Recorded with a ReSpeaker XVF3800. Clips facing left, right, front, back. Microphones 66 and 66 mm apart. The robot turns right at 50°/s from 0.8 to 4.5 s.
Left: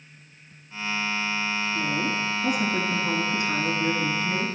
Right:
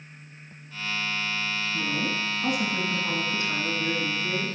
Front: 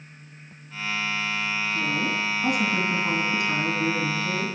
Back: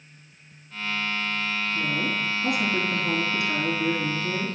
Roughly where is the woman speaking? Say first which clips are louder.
Left 1 dB, front 1 dB; right.